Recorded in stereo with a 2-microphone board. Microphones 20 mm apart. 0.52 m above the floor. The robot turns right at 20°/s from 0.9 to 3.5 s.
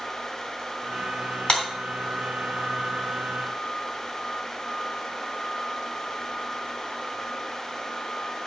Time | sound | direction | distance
1.5 | a clap | 55° left (ahead or behind) | 2.5 m